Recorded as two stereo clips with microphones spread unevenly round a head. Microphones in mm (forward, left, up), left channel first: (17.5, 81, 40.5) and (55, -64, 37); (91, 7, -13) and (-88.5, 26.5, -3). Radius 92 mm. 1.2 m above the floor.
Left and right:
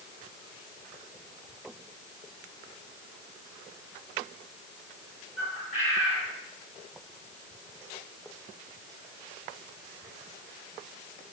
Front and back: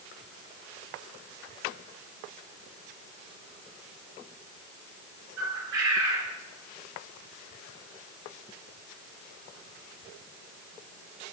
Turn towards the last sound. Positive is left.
turn(degrees=155)